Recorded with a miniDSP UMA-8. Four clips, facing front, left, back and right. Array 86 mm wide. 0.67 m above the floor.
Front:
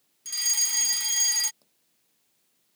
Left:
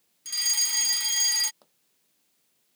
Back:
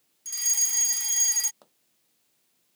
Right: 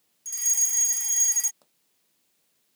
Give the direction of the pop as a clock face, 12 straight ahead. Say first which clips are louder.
Left 4 dB, back 12 dB; 6 o'clock.